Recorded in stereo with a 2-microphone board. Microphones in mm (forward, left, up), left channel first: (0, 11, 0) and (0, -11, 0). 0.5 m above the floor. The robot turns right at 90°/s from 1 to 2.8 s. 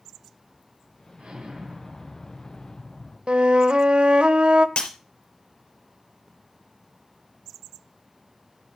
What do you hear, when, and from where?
1.2 s an explosion: 75° right, 3 m; by 3.2 s 75° left, 3 m
3.3 s a flute: 65° right (ahead or behind), 0.7 m
4.8 s breaking glass: 70° left (ahead or behind), 4.5 m